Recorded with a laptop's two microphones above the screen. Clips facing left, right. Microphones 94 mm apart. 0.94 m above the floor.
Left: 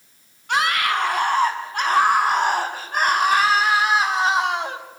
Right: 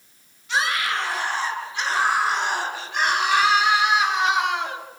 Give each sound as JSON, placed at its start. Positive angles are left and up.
{"t": 0.5, "sound": "a scream", "side_deg": 60, "distance_m": 8.0}